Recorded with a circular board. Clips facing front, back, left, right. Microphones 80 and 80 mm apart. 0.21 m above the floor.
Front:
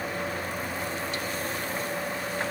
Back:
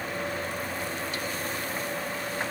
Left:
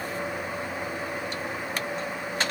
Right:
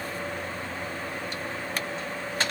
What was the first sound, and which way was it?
Only background noise.